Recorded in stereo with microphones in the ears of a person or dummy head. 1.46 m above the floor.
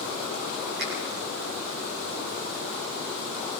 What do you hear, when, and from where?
0.8 s a finger snap: 65° right (ahead or behind), 9 m